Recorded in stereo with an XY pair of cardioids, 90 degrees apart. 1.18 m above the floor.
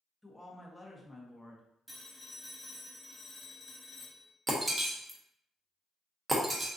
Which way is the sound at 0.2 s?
5° left.